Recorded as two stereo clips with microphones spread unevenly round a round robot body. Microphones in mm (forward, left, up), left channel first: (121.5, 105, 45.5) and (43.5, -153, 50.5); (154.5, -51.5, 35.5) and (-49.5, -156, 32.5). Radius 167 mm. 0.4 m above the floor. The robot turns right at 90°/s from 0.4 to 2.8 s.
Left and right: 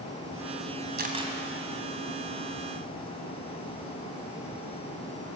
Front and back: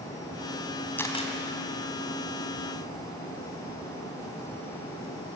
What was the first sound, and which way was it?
A camera shutter, 55° right.